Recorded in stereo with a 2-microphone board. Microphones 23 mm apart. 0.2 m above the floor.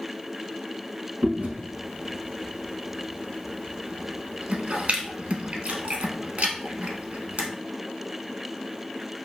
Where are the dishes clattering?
I don't hear dishes clattering.